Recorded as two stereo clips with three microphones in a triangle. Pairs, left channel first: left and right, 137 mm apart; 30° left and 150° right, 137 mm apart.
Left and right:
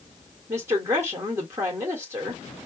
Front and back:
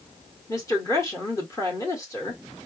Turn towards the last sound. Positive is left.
turn(degrees=-30)